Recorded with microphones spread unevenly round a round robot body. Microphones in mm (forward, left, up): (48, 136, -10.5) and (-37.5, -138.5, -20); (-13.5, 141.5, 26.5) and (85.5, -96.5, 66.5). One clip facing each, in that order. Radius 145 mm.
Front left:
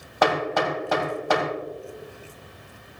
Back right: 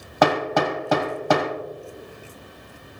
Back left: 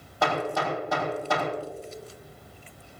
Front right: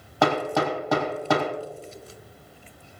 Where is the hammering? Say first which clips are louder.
Back right 3 dB, front right 5 dB; 100° right, 2.5 m.